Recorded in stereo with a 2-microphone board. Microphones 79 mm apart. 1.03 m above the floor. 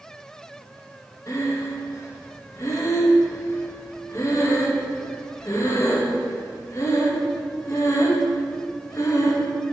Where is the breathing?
40° left (ahead or behind), 0.8 m.